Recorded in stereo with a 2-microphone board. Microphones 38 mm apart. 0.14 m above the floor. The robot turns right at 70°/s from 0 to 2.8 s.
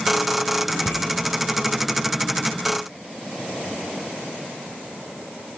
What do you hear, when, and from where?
0.7 s a bicycle bell: 70° left (ahead or behind), 3.5 m; by 1.1 s 75° left (ahead or behind), 3.5 m